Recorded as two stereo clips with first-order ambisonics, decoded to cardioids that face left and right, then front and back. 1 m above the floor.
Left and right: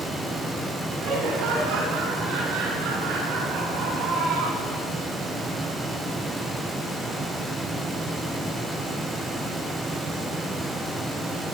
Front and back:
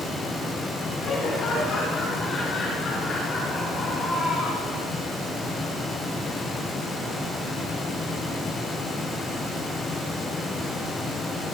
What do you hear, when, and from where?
1.0 s laughter: 65° right, 8 m; by 4.8 s 75° right, 9.5 m